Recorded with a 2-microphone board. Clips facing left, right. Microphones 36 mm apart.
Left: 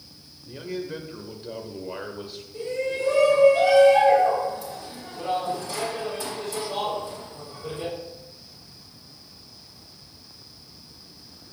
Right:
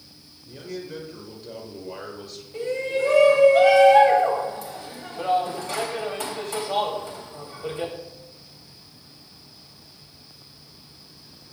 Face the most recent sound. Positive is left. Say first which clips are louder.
# right 2 dB
turn(degrees=-70)  # may be behind; listen again after turning